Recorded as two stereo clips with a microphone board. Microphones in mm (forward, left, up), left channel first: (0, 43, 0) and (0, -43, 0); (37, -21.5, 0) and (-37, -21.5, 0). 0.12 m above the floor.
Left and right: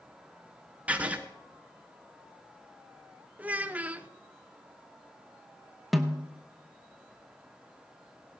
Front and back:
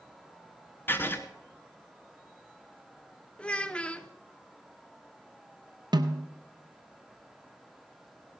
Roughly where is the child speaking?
Ahead right.